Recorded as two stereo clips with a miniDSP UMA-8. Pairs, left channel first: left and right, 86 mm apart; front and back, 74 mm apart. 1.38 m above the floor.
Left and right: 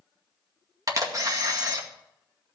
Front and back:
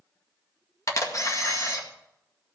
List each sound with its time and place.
0.9 s a camera shutter: 45° right, 2 m